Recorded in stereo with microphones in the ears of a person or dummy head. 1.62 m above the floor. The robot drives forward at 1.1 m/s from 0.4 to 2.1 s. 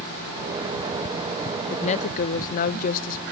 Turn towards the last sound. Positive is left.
turn(degrees=50)  # may be behind; listen again after turning